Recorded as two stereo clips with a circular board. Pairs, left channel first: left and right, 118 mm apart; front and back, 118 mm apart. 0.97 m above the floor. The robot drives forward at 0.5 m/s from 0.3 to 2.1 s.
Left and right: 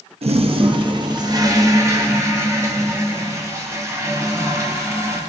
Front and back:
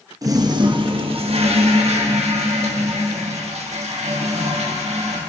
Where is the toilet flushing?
120° right, 0.7 m; by 5.2 s 155° right, 1.4 m.